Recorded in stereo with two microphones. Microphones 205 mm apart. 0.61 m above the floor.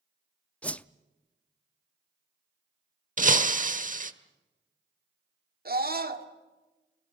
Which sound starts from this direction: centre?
A whoosh, at 0.6 s.